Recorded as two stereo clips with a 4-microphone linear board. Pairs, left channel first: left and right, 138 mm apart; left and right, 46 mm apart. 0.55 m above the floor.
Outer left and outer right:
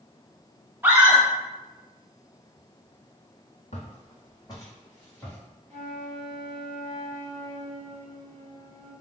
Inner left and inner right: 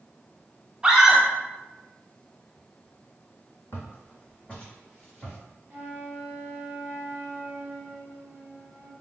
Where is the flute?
45° right (ahead or behind), 0.9 m.